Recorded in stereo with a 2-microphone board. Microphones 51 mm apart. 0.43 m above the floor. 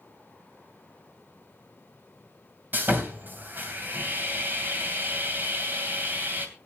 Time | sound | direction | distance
2.7 | sawing | 40° right (ahead or behind) | 2.5 m